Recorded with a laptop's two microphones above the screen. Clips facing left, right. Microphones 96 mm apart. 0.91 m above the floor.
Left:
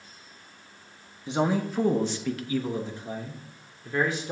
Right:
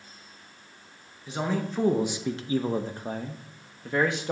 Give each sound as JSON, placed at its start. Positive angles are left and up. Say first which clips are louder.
{"t": 1.3, "sound": "a man speaking", "louder": "left 4 dB", "side_deg": 25, "distance_m": 0.7}